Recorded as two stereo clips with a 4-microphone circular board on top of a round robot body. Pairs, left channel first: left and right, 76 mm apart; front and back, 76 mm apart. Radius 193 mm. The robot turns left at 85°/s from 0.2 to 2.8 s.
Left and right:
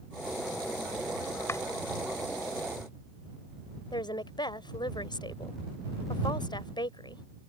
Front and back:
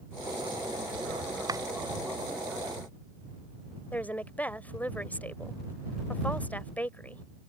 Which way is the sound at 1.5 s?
145° left.